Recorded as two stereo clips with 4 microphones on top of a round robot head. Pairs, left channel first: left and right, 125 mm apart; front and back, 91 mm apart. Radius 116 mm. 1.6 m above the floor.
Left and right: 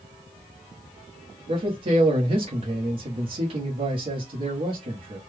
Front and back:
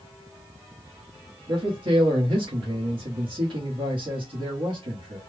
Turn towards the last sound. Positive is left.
turn(degrees=-135)